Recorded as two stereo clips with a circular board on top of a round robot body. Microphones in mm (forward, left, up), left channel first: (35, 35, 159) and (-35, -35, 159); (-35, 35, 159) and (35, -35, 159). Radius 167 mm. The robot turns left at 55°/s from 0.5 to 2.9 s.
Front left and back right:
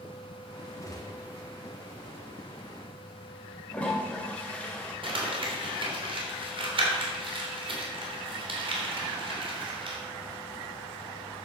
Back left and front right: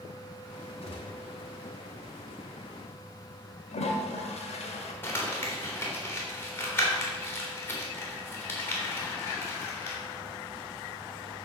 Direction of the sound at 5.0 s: 160° right.